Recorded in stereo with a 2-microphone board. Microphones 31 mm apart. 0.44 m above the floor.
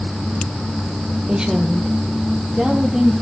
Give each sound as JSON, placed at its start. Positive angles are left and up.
{"t": 1.3, "sound": "a woman speaking", "side_deg": -30, "distance_m": 1.4}